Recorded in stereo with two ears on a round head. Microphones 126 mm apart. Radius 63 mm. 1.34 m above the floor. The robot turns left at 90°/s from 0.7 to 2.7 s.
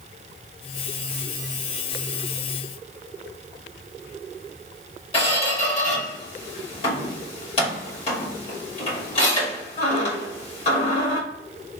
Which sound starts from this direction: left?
A squeak, at 5.1 s.